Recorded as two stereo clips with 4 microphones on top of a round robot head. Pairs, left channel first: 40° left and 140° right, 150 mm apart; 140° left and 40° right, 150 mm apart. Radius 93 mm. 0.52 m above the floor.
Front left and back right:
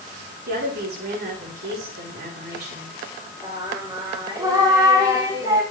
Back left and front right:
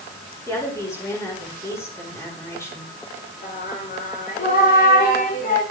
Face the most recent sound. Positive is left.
turn(degrees=155)